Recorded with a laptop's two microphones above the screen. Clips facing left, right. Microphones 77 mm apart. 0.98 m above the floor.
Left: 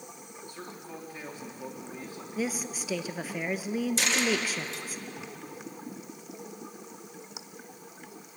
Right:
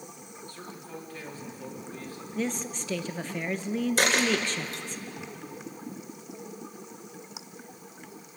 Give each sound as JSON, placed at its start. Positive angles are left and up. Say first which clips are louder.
{"t": 0.5, "sound": "a man speaking", "louder": "even", "side_deg": 20, "distance_m": 2.5}
{"t": 2.4, "sound": "a woman speaking", "louder": "right 1 dB", "side_deg": 5, "distance_m": 0.7}
{"t": 4.0, "sound": "a dropped coin", "louder": "right 3 dB", "side_deg": -55, "distance_m": 2.0}